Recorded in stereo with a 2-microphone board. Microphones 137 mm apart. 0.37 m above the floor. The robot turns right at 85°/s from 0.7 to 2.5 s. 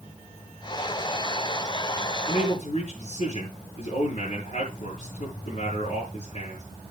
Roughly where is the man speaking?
Left.